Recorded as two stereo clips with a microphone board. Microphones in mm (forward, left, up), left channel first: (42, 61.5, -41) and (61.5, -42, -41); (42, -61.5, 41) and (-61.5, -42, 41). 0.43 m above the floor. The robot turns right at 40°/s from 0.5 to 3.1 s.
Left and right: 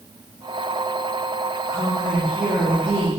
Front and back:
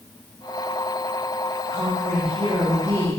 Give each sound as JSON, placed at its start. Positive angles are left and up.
{"t": 1.7, "sound": "a woman speaking", "azimuth_deg": 160, "distance_m": 4.5}